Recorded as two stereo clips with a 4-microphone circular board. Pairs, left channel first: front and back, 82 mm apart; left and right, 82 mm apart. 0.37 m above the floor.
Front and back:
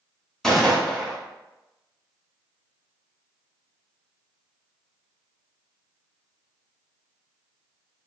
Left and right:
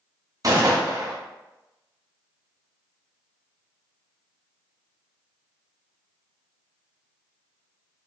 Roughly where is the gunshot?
Right.